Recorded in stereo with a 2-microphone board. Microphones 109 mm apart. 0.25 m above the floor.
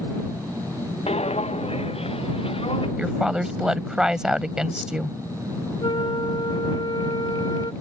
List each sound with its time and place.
1.1 s footsteps: 85° left; by 2.9 s 65° left (ahead or behind)
3.0 s a woman speaking: 5° right (ahead or behind)
5.8 s a flute: 50° left (ahead or behind)